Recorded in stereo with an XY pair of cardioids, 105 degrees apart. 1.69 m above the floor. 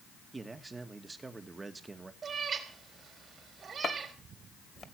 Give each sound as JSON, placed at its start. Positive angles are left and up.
{"t": 0.3, "sound": "a man speaking", "azimuth_deg": -25, "distance_m": 2.0}
{"t": 2.2, "sound": "a cat meowing", "azimuth_deg": -45, "distance_m": 4.0}
{"t": 3.8, "sound": "chopping", "azimuth_deg": 45, "distance_m": 2.0}